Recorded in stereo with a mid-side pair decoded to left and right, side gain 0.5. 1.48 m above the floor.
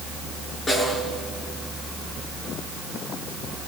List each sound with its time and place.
0.7 s a snare drum: 30° left, 8 m